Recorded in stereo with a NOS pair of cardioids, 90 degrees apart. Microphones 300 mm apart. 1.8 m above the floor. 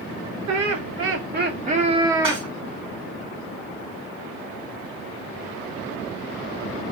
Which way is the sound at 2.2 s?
15° right.